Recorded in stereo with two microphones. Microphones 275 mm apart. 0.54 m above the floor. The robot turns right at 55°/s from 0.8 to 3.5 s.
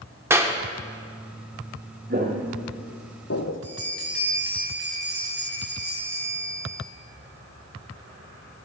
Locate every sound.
0.3 s a clap: 10° right (ahead or behind), 0.8 m
2.1 s footsteps: 35° right (ahead or behind), 1.7 m; by 3.6 s 40° left (ahead or behind), 1.0 m
3.6 s a bell: 50° left (ahead or behind), 4 m